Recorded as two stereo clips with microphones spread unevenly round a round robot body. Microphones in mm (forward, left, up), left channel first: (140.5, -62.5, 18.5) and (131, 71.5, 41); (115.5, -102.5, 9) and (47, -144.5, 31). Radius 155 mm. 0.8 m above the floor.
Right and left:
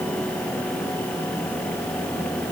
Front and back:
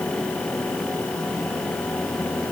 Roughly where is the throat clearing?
No throat clearing in this recording.